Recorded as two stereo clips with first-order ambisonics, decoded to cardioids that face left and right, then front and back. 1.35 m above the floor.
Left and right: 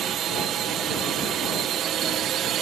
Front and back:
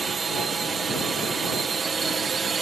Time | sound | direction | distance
0.0 | a drone | 115° right | ?